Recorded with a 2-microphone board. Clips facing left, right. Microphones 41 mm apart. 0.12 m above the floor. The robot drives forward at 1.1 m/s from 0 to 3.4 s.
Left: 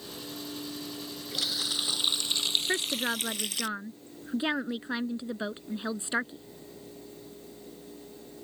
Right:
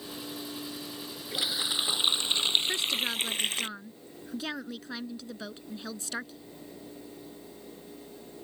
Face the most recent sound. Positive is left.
turn(degrees=30)  # may be behind; listen again after turning